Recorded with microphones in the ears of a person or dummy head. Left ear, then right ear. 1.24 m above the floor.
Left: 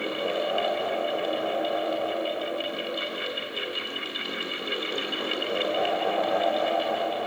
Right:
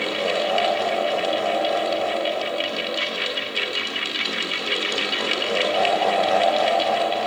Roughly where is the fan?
Right.